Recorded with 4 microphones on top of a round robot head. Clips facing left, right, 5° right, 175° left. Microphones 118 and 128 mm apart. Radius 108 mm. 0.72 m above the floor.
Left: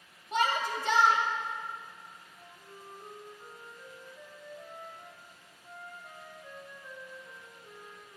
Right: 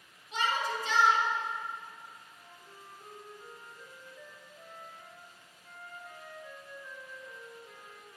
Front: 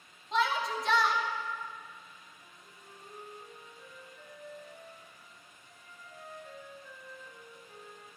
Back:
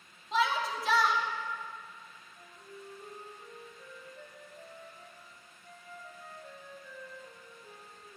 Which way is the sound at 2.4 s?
165° left.